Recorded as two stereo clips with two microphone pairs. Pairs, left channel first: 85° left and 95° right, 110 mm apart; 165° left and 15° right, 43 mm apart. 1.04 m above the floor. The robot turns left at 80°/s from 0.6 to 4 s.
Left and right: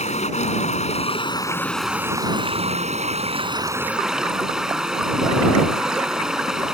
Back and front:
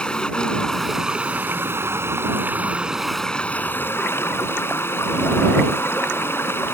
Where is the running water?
95° left; by 6.8 s straight behind.